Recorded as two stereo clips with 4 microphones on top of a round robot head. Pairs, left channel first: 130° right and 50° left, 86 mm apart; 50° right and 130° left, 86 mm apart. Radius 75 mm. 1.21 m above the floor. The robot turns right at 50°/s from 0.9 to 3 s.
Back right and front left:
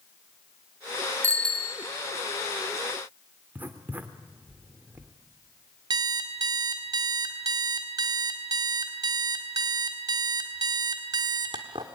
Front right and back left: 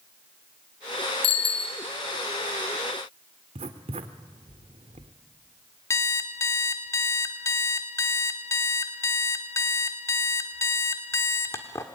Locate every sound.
1.2 s a bicycle bell: 60° right, 2.5 m; by 1.8 s 35° right, 2.5 m
3.5 s writing: 120° left, 1.5 m
5.9 s an alarm clock: 10° left, 1.3 m